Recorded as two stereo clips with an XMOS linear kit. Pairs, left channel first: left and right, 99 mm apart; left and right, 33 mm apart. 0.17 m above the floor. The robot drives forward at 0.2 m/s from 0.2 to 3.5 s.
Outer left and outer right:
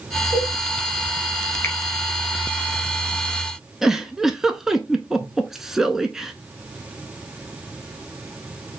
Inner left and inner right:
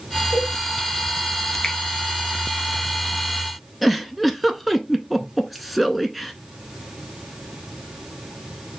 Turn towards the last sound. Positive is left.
turn(degrees=-5)  # may be behind; listen again after turning